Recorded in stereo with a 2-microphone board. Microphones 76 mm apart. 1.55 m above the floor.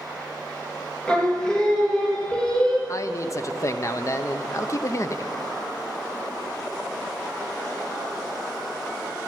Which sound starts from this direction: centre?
Singing, at 1.1 s.